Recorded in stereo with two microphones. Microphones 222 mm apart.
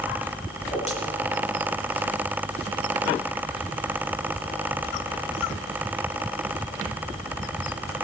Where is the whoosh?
30° left (ahead or behind), 9.5 m.